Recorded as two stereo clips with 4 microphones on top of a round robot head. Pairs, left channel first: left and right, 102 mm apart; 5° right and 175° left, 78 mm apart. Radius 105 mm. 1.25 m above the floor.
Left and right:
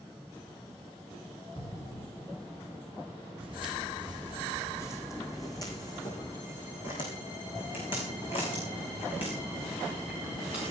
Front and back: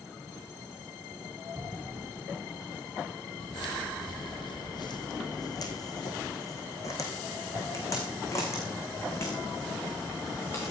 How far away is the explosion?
About 4 m.